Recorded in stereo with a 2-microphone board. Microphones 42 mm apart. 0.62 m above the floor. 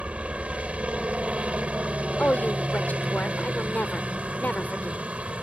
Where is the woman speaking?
45° left (ahead or behind).